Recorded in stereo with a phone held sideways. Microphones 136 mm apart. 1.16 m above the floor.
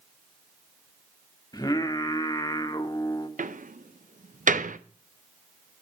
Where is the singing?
30° left (ahead or behind), 1.0 m.